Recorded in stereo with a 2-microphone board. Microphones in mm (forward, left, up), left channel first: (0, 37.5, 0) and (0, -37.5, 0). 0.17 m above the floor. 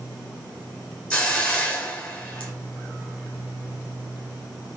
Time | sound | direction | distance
1.1 | a hiss | 20° left (ahead or behind) | 3 m